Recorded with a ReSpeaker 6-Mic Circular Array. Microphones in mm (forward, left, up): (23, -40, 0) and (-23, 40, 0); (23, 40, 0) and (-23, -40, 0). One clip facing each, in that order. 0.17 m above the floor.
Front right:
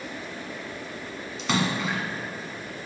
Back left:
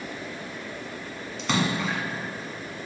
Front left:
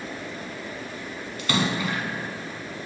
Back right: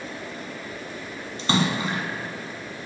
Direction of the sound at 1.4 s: 150° right.